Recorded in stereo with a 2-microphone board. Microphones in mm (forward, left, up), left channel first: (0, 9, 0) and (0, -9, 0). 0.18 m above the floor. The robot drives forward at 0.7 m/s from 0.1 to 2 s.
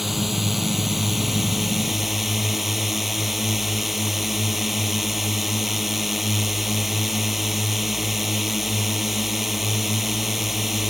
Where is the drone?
10° right (ahead or behind).